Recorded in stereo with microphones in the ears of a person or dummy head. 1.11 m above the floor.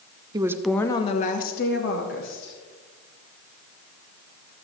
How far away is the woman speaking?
About 0.6 m.